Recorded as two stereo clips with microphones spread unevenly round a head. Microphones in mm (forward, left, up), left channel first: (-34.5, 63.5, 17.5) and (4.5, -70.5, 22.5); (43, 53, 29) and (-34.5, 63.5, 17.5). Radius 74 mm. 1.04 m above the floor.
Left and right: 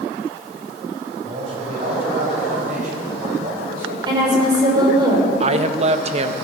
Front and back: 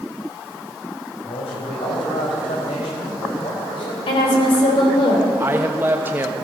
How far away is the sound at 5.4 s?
About 0.9 m.